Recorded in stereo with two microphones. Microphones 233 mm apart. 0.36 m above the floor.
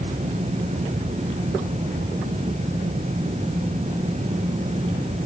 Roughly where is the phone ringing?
No phone ringing in this recording.